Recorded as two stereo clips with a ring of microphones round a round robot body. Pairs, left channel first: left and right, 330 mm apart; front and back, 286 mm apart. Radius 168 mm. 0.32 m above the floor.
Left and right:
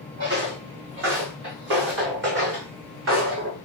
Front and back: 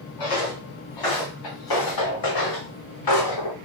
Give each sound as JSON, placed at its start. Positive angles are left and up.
{"t": 0.2, "sound": "footsteps", "azimuth_deg": -30, "distance_m": 3.0}